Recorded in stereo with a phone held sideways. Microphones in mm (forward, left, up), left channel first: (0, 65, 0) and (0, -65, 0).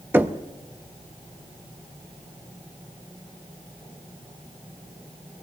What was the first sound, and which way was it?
Knocking, 15° right (ahead or behind).